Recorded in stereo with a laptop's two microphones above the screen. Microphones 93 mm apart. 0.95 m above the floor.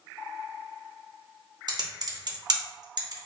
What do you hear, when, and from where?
1.7 s typing on a keyboard: 45° right (ahead or behind), 0.7 m